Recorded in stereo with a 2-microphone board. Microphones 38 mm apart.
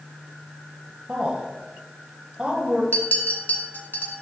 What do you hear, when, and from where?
1.1 s a woman speaking: 25° right (ahead or behind), 1.1 m
2.9 s a clink: 55° left (ahead or behind), 2.0 m